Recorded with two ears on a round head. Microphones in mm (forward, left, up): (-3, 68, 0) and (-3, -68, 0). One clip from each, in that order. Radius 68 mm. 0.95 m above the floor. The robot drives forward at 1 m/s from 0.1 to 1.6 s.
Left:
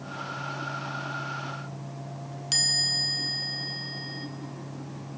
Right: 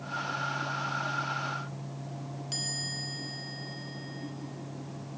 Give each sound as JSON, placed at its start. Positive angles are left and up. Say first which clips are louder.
{"t": 2.5, "sound": "a chime", "louder": "left 11 dB", "side_deg": 60, "distance_m": 1.5}